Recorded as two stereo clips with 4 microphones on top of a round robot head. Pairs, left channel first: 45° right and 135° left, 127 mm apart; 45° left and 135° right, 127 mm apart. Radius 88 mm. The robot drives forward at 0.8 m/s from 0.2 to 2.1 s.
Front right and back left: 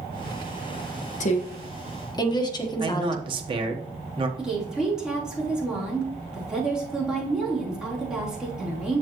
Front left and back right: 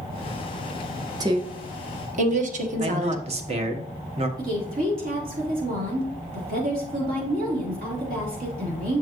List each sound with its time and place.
1.2 s a woman speaking: 70° right, 1.3 m; by 3.2 s 105° right, 1.3 m
2.8 s a man speaking: 175° right, 1.3 m
4.4 s a woman speaking: 140° right, 3.5 m